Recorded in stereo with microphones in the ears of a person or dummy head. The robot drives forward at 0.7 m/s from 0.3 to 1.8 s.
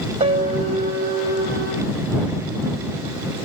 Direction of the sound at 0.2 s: 40° right (ahead or behind).